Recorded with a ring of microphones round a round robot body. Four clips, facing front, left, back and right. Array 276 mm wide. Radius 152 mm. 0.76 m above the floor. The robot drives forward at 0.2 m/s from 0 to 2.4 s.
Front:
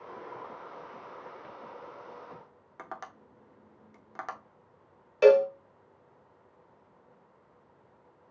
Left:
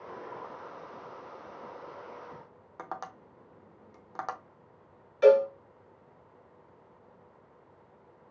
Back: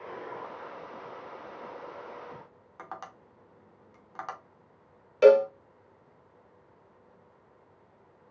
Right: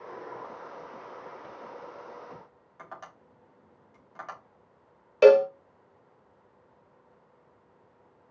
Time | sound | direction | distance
2.8 | tapping | 70° left | 0.7 m
5.2 | a cowbell | 90° right | 0.6 m